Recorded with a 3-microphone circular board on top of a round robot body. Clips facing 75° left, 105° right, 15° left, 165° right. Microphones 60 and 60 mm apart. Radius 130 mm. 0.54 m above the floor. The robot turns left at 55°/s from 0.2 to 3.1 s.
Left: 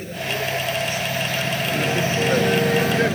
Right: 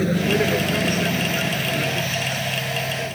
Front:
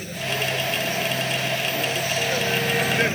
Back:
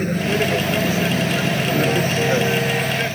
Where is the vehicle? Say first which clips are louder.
Right 7 dB, back 7 dB; 115° right; by 3.2 s 85° left.